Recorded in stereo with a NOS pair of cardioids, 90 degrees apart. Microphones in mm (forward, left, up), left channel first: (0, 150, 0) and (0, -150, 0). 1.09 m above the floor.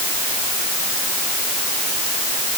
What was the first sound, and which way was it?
Only background noise.